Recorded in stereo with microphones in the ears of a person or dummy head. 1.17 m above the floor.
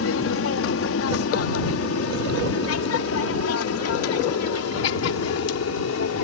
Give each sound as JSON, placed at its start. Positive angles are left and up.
{"t": 0.0, "sound": "an aircraft", "side_deg": 60}